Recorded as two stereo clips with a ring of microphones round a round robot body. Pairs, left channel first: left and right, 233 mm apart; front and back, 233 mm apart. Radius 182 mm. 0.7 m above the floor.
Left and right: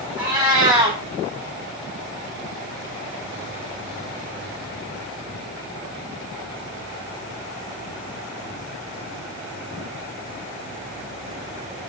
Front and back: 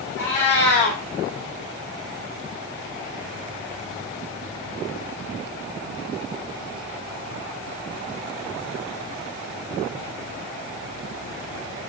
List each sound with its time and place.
0.2 s a cat meowing: 25° right, 0.7 m